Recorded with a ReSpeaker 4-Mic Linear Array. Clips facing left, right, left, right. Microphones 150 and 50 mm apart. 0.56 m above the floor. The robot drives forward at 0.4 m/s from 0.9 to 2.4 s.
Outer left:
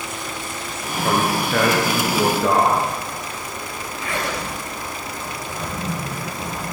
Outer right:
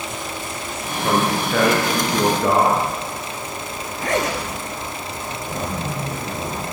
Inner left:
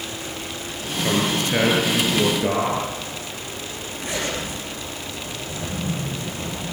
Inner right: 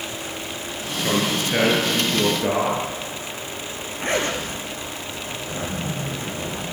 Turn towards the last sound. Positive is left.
turn(degrees=-40)  # may be behind; listen again after turning